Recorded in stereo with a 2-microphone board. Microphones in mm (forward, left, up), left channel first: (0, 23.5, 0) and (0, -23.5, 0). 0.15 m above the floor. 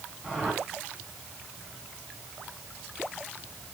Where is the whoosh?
Centre (ahead or behind), 7.5 m.